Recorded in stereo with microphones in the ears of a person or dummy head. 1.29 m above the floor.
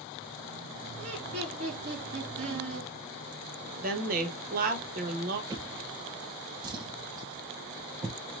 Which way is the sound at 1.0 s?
50° right (ahead or behind).